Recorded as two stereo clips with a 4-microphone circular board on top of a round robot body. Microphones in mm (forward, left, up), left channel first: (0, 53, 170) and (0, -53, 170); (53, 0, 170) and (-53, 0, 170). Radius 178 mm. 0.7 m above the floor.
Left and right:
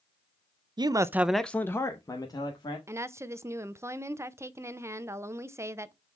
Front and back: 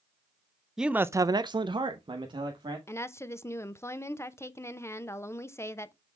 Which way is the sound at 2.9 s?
45° right.